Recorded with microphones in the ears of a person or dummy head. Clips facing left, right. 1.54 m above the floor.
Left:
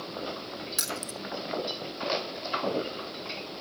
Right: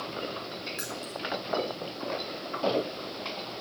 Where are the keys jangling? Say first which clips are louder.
Even; 55° left (ahead or behind), 0.8 m.